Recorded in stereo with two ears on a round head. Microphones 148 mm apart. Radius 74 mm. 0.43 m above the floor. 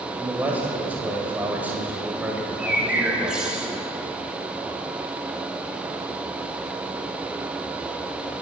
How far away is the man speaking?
About 1.9 m.